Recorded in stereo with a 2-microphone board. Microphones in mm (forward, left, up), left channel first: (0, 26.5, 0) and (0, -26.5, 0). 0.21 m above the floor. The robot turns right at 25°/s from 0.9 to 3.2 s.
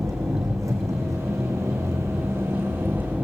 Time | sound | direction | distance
0.0 | an engine running | 90° right | 4 m